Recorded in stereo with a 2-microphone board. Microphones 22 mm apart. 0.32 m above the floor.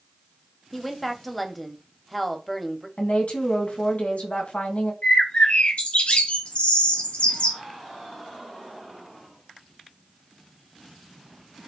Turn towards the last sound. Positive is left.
turn(degrees=55)  # may be behind; listen again after turning